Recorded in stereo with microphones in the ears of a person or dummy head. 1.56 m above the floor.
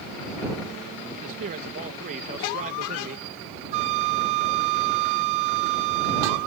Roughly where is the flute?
Right.